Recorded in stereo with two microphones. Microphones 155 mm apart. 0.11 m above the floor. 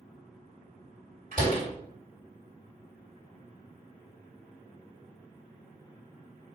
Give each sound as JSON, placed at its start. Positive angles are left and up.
{"t": 1.3, "sound": "a door slam", "side_deg": -55, "distance_m": 1.9}